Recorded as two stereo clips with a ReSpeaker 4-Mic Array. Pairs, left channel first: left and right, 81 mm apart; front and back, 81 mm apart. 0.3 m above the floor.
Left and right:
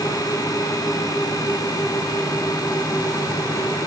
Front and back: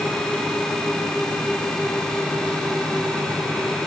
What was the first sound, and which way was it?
Only background noise.